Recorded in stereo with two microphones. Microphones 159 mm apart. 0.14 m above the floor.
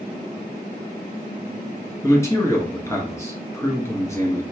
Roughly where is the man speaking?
Centre.